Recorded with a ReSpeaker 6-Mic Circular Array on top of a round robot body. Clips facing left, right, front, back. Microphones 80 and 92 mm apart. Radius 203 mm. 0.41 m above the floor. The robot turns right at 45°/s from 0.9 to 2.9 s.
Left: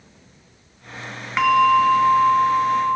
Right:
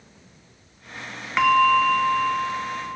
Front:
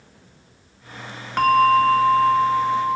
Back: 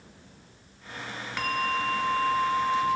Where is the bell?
Straight ahead; by 3.0 s 70° left.